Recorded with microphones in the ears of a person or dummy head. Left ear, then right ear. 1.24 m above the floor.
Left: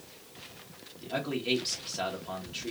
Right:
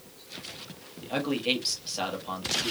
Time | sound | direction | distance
1.0 | a man speaking | 20° right (ahead or behind) | 1.4 m